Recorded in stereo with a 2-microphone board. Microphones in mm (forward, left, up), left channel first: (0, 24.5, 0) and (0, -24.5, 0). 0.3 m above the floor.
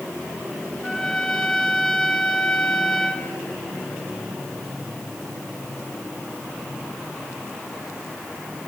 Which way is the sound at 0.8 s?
10° left (ahead or behind).